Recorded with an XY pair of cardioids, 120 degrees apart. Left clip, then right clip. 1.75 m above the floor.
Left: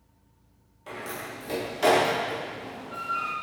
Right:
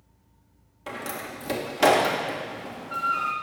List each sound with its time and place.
0.9 s a door slam: 50° right, 1.6 m